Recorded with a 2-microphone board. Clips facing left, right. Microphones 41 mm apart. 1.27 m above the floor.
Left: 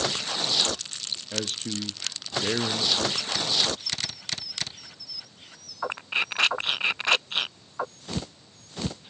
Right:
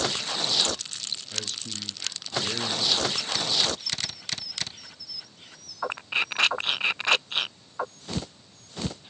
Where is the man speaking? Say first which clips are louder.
Left 8 dB; 45° left (ahead or behind), 0.6 m.